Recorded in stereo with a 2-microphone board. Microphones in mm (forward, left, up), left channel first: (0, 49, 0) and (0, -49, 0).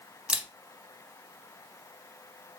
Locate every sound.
0.3 s a camera shutter: 10° right (ahead or behind), 0.6 m